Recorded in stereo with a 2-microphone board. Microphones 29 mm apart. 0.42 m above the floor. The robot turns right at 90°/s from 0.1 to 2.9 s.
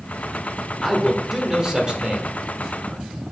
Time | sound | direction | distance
0.8 | a man speaking | 10° left (ahead or behind) | 1.2 m